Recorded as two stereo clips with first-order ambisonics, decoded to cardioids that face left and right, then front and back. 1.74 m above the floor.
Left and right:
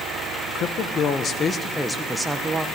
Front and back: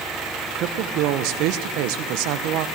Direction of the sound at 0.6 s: 140° left.